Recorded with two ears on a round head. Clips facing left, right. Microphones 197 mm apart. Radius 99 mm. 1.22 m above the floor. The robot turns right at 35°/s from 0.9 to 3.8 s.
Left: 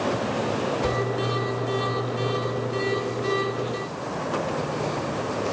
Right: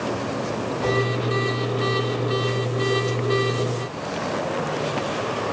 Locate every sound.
0.8 s a whoosh: 30° left (ahead or behind), 6 m; by 1.0 s 25° left (ahead or behind), 6 m